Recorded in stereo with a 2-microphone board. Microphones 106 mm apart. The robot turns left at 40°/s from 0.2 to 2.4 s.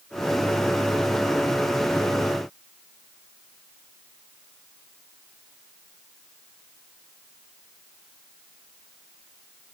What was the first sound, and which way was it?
Only background noise.